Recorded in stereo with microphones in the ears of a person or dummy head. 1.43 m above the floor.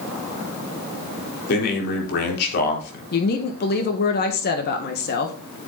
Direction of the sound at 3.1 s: 55° left (ahead or behind).